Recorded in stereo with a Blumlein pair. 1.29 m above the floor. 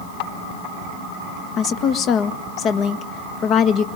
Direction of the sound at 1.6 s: 30° left.